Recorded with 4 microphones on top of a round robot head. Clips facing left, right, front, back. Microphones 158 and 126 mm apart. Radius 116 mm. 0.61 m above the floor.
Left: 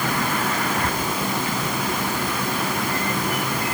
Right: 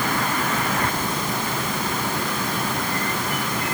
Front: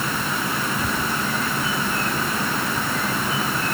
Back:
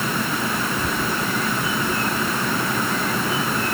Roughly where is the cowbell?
No cowbell in this recording.